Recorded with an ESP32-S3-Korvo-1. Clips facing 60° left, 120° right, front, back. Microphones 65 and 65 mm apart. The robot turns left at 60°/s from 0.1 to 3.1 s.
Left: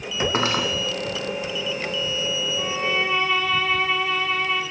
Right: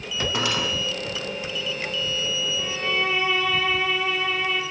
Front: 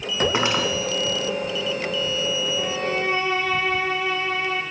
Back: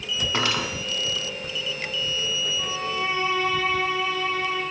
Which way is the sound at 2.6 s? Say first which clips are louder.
Left 2 dB, front 3 dB; straight ahead.